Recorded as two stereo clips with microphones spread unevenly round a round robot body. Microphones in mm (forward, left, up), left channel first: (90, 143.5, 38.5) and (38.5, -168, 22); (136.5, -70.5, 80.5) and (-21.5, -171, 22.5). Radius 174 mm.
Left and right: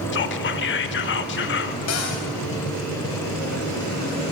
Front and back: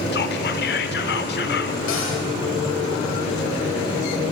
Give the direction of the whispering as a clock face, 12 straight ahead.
10 o'clock.